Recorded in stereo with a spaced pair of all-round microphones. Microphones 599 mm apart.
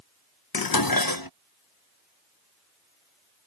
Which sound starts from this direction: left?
Dishes clattering, at 0.5 s.